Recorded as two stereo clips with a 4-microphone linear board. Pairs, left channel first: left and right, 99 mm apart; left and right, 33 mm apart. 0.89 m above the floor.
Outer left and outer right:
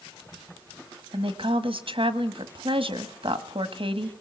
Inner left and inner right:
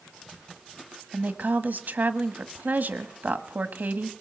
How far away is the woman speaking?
About 1.4 m.